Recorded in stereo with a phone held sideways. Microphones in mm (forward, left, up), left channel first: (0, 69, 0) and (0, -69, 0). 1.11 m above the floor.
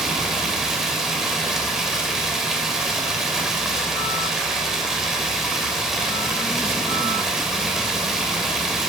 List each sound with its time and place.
0.0 s running water: centre (ahead or behind), 2.5 m